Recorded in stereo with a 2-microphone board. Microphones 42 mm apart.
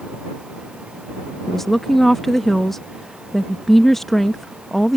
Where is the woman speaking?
10° left (ahead or behind).